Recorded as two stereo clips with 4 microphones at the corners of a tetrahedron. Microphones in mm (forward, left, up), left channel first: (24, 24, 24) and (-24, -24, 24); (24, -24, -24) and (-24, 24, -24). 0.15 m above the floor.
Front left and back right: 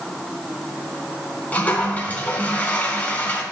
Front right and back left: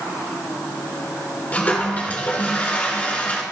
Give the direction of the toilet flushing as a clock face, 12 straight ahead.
12 o'clock.